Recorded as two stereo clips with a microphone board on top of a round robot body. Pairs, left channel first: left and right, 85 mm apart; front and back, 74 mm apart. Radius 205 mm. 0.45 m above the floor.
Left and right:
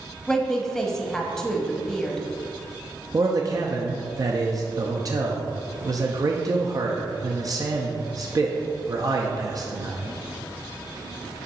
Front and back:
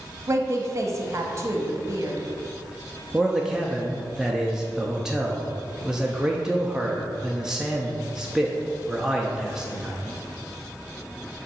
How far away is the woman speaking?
About 1.2 m.